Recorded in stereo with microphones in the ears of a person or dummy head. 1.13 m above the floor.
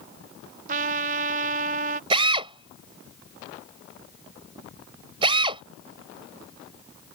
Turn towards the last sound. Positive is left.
turn(degrees=-30)  # may be behind; listen again after turning